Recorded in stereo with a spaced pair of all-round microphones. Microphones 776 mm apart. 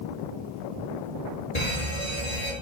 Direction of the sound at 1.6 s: 55° left (ahead or behind).